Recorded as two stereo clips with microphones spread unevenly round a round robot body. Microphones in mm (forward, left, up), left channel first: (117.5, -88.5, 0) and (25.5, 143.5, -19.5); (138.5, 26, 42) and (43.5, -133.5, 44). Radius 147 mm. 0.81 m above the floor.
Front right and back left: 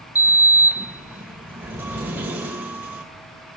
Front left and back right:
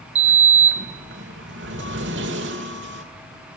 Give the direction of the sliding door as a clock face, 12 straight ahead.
5 o'clock.